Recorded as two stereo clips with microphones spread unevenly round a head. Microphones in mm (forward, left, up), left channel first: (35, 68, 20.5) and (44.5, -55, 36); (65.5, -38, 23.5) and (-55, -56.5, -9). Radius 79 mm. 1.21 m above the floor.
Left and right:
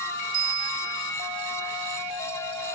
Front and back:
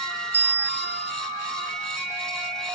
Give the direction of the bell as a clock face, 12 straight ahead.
3 o'clock.